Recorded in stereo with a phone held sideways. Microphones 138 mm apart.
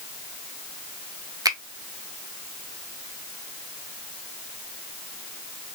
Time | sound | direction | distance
1.4 | a finger snap | 25° right (ahead or behind) | 0.5 m